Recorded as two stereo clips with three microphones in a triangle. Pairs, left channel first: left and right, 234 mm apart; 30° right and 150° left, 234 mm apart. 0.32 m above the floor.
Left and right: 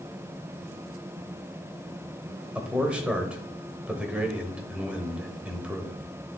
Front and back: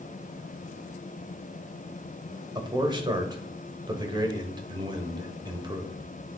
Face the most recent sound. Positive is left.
turn(degrees=-170)